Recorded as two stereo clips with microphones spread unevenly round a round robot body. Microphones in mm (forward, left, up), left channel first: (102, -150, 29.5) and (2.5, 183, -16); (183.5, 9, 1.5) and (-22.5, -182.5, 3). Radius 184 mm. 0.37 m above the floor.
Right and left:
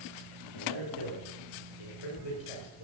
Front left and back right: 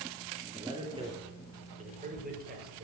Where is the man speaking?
60° right, 6.5 m; by 2.9 s 85° right, 7 m.